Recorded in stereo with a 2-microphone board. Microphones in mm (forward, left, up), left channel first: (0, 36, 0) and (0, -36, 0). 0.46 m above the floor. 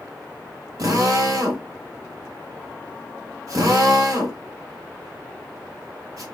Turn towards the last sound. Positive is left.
turn(degrees=-55)  # may be behind; listen again after turning